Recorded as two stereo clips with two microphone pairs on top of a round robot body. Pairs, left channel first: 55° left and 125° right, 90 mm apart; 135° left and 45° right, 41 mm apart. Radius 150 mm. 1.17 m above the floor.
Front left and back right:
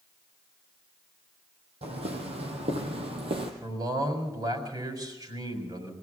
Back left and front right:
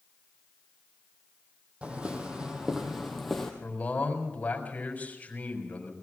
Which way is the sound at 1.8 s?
110° right.